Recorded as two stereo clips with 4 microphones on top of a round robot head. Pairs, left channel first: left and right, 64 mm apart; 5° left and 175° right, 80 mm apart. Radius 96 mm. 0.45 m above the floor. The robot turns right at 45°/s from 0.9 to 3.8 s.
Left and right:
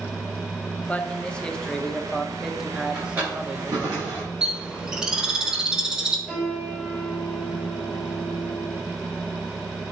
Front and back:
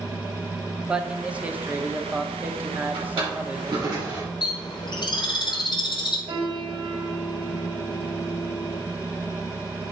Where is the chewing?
No chewing in this recording.